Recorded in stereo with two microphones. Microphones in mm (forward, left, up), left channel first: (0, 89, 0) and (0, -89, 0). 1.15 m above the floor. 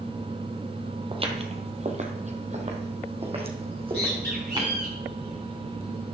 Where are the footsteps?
30° right (ahead or behind), 1.5 m; by 4.7 s 25° right (ahead or behind), 3.5 m.